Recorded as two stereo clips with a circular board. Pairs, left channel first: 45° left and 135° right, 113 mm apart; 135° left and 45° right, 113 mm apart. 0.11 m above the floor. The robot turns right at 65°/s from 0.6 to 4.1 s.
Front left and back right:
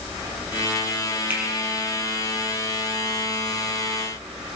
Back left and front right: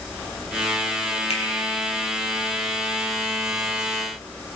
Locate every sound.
1.3 s a finger snap: 155° left, 3 m; by 1.4 s 160° left, 3 m